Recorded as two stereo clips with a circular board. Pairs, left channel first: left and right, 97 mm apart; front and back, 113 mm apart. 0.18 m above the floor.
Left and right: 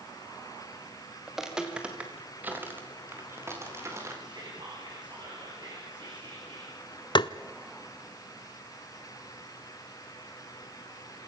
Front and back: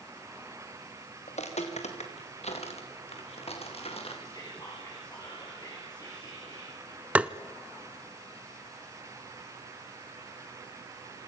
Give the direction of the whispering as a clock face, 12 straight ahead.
2 o'clock.